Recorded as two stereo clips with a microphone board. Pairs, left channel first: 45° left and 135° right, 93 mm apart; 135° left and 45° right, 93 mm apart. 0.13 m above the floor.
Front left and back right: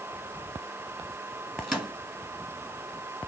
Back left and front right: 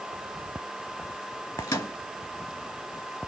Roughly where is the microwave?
Behind left.